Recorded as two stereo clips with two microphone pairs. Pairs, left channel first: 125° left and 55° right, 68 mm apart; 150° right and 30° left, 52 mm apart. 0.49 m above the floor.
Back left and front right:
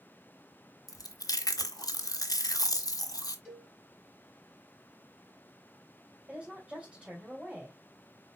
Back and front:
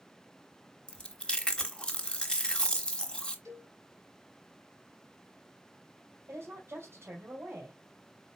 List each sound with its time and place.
0.9 s chewing: 140° left, 0.7 m
3.5 s a cowbell: 20° left, 1.7 m
6.3 s a woman speaking: 10° left, 2 m